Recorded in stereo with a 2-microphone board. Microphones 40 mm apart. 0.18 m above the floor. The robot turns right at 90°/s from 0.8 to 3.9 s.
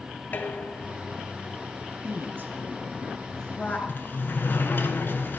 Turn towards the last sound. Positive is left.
turn(degrees=60)  # may be behind; listen again after turning